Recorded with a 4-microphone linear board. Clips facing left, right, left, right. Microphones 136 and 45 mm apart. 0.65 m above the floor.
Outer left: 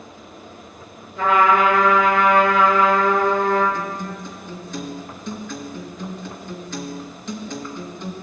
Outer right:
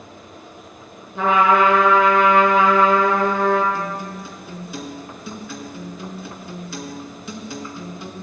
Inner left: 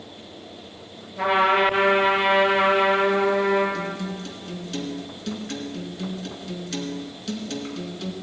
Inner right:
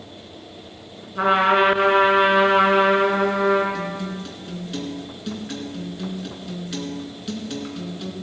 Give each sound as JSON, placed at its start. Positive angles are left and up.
{"t": 1.1, "sound": "a trumpet", "side_deg": -70, "distance_m": 4.0}
{"t": 3.7, "sound": "a guitar", "side_deg": -10, "distance_m": 2.5}